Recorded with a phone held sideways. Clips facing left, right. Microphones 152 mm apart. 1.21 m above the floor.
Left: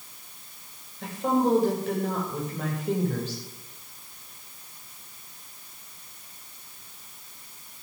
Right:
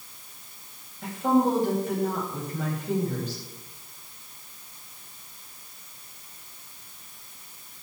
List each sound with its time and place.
1.0 s a woman speaking: 75° left (ahead or behind), 6 m